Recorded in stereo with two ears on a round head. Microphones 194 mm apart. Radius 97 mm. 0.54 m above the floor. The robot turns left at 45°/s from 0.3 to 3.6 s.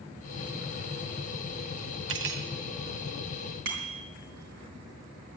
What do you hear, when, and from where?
2.1 s cutlery clinking: 65° right (ahead or behind), 1.1 m; by 2.5 s 50° right (ahead or behind), 1.1 m
3.6 s a bicycle bell: 55° right (ahead or behind), 3.5 m